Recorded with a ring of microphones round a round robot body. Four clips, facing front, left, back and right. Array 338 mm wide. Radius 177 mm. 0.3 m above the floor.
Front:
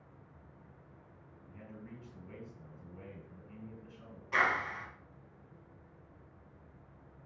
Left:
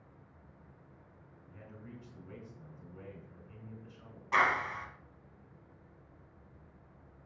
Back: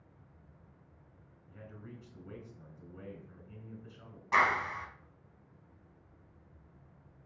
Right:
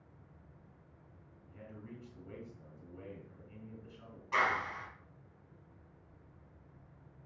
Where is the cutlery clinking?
I don't hear cutlery clinking.